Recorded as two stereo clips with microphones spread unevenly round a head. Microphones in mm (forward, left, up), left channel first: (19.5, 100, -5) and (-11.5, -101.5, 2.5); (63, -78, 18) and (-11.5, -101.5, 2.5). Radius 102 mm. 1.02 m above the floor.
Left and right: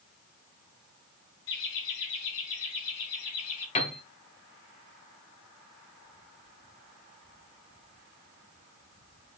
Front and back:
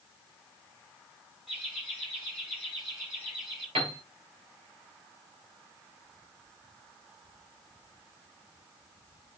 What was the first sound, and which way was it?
Laughter, 110° left.